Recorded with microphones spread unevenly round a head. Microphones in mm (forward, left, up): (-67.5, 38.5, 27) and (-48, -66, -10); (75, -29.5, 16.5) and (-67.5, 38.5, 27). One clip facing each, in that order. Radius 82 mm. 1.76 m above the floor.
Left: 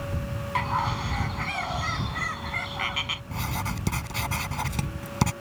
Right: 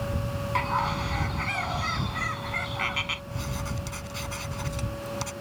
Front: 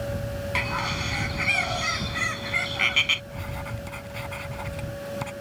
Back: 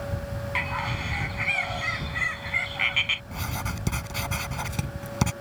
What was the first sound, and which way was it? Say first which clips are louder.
A bird: even, front 2 dB; 15° left.